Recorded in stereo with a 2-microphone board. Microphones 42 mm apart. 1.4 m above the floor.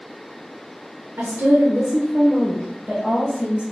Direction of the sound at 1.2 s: 75° right (ahead or behind).